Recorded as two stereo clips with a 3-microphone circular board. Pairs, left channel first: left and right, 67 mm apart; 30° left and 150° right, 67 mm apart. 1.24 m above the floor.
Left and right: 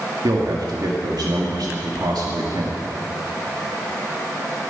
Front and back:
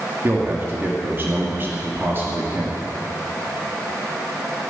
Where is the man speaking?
95° right, 2 m.